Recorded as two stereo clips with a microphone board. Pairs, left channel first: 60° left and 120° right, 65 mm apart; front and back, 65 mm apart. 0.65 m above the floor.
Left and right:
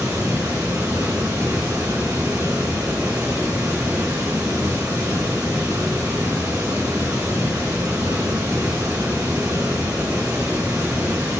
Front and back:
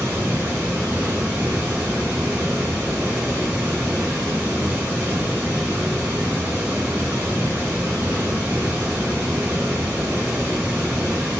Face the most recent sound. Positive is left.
turn(degrees=-115)